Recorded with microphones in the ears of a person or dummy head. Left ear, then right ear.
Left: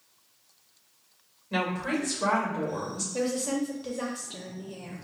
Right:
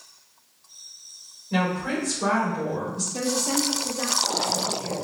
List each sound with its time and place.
1.5 s a woman speaking: 15° left (ahead or behind), 1.9 m
3.1 s a woman speaking: centre (ahead or behind), 0.6 m